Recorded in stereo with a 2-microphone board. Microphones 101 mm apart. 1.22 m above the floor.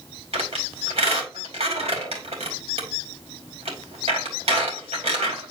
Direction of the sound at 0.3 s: 80° right.